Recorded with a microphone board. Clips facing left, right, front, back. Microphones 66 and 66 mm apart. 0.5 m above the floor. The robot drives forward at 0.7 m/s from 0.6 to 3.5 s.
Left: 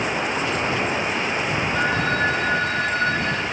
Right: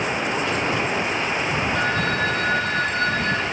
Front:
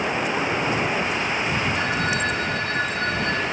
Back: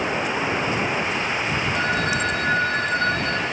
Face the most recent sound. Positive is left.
turn(degrees=165)